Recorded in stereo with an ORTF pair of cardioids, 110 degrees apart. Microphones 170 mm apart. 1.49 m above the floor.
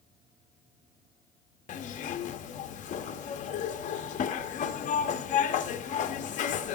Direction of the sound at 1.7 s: 50° left.